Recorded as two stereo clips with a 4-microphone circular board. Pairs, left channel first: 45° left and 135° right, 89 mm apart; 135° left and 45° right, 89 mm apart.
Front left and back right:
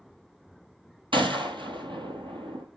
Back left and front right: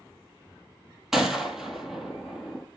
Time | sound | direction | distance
1.1 | a gunshot | 130° right | 1.3 m